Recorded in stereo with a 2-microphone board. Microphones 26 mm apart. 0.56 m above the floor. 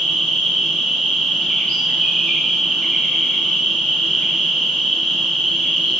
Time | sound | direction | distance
0.0 | an insect | 55° left (ahead or behind) | 1.5 m